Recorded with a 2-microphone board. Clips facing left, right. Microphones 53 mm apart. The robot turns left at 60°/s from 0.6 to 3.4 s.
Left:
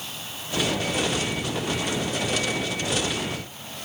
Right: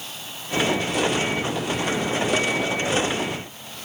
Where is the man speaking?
I don't hear a man speaking.